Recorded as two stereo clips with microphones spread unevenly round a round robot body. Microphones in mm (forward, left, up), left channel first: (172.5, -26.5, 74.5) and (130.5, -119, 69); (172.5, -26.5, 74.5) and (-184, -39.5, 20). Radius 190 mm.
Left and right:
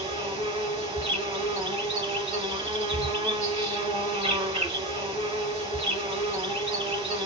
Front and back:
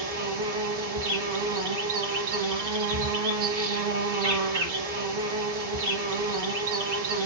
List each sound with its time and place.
0.0 s an insect: 155° right, 1.3 m